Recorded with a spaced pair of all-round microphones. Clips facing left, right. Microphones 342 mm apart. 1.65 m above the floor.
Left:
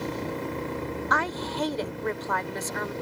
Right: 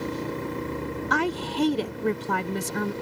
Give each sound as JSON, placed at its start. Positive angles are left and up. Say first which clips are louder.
{"t": 1.1, "sound": "a woman speaking", "louder": "right 4 dB", "side_deg": -40}